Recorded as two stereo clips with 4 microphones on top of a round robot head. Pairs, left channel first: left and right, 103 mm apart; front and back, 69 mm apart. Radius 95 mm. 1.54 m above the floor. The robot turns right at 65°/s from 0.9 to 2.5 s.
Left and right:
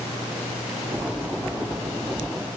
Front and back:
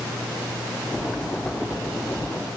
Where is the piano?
No piano in this recording.